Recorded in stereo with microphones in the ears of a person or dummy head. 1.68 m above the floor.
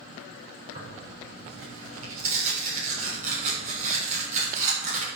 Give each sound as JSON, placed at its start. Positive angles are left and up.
{"t": 0.8, "sound": "tearing paper", "side_deg": -40, "distance_m": 6.0}